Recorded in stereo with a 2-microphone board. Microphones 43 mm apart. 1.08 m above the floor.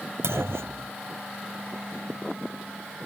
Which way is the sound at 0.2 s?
80° right.